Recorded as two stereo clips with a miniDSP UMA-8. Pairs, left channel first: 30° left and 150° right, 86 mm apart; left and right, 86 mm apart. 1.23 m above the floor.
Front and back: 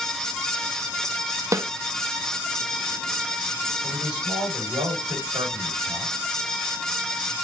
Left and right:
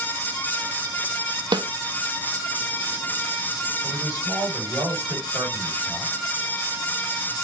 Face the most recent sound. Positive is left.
turn(degrees=-140)